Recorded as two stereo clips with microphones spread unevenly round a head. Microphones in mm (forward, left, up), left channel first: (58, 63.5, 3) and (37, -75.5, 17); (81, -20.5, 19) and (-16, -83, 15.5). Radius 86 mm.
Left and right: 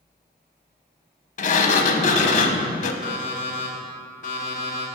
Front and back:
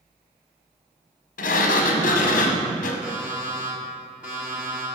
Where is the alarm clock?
135° left, 1.9 m.